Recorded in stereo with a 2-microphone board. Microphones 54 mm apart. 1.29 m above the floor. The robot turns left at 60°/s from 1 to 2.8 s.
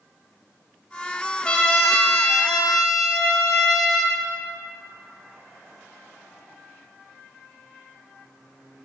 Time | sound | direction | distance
1.4 | a trumpet | 20° left (ahead or behind) | 0.8 m